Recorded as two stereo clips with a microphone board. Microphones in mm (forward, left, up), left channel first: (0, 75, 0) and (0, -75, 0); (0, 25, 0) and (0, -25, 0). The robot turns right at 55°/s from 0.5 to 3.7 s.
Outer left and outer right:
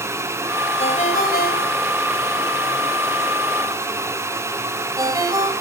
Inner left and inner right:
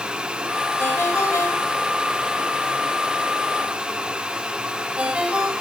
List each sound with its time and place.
0.8 s a ringtone: 45° left (ahead or behind), 5 m; by 5.5 s 25° right (ahead or behind), 5 m